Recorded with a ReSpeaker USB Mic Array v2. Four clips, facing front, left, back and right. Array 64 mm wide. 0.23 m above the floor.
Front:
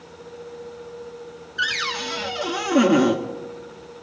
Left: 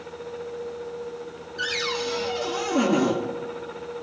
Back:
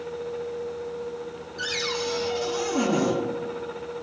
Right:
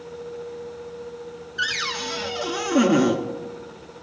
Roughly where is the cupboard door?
Ahead right.